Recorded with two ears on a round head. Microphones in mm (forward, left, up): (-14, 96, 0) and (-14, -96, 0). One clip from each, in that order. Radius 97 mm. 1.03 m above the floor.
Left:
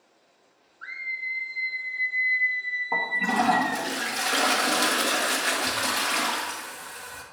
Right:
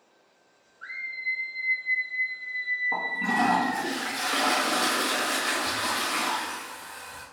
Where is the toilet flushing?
30° left (ahead or behind), 1.8 m.